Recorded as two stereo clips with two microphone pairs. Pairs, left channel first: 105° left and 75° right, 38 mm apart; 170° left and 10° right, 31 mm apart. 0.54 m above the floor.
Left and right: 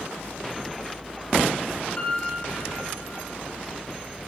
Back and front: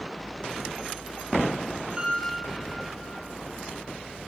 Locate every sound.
2.0 s a piano: 55° left, 8 m